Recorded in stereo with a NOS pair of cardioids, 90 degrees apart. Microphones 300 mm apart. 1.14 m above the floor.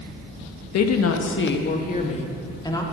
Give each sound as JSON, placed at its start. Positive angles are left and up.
{"t": 0.7, "sound": "a woman speaking", "azimuth_deg": 65, "distance_m": 1.4}